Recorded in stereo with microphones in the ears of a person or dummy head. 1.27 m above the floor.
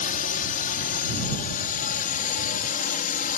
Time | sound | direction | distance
0.0 | a drone | 45° left (ahead or behind) | ?